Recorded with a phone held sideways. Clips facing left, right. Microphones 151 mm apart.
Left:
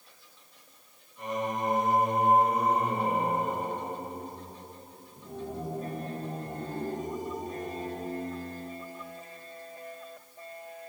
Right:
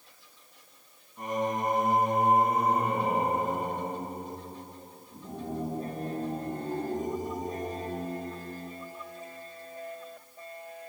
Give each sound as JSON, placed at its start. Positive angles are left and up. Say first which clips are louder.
{"t": 1.2, "sound": "singing", "louder": "right 2 dB", "side_deg": -50, "distance_m": 3.0}